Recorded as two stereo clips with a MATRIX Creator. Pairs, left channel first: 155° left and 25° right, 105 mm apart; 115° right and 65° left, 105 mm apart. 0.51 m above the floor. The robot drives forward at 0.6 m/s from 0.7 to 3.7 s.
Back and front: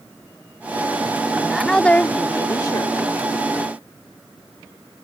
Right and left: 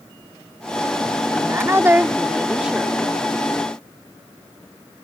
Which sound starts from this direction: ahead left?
A woman speaking, at 1.3 s.